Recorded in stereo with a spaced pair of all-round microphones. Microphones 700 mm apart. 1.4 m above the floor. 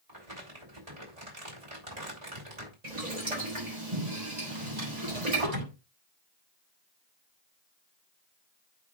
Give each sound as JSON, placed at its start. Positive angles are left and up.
{"t": 0.1, "sound": "crumpling", "side_deg": -65, "distance_m": 4.0}
{"t": 2.8, "sound": "boiling", "side_deg": -85, "distance_m": 5.0}
{"t": 4.5, "sound": "a drawer", "side_deg": -75, "distance_m": 6.0}